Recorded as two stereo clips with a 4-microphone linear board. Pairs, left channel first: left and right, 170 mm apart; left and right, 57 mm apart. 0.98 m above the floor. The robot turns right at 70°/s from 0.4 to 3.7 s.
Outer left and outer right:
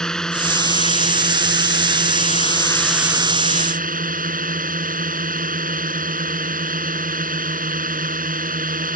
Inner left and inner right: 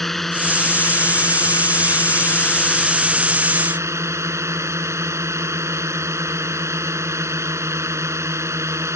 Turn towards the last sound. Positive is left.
turn(degrees=-125)